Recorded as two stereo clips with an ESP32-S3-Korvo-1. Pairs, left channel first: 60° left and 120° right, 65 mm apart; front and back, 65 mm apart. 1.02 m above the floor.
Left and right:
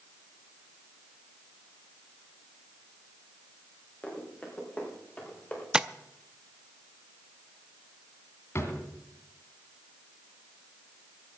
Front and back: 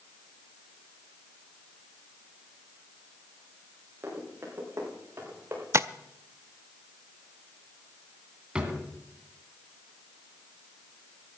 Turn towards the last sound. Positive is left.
turn(degrees=105)